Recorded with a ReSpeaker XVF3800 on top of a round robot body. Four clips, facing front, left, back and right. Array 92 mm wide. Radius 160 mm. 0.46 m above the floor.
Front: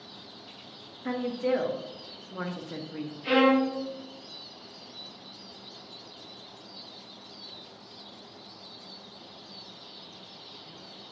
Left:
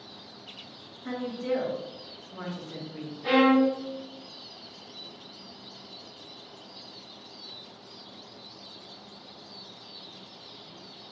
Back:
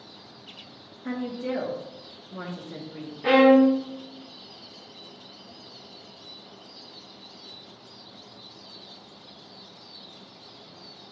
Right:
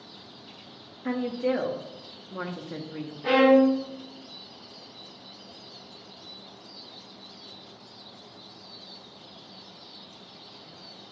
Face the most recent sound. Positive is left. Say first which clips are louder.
# right 3 dB, back 7 dB
turn(degrees=-170)